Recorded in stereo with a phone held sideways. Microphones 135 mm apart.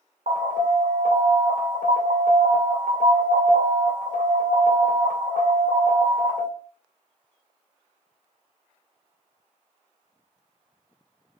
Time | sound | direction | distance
0.3 | an alarm | 80° right | 2.5 m